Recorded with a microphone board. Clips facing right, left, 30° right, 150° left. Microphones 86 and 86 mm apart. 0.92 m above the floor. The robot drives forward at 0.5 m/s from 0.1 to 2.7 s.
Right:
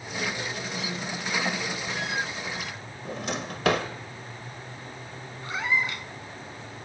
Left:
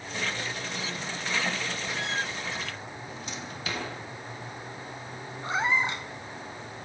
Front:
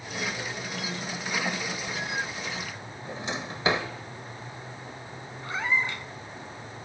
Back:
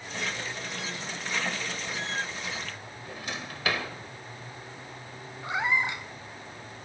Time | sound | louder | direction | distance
3.0 | a drawer | right 11 dB, front 4 dB | 95° right | 1.8 m
5.4 | a cat meowing | left 1 dB, back 1 dB | 100° left | 0.9 m